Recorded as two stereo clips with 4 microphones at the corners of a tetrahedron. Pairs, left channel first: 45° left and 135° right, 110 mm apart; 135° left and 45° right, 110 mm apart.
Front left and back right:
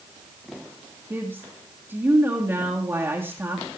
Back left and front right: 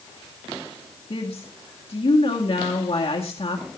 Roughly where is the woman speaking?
Behind.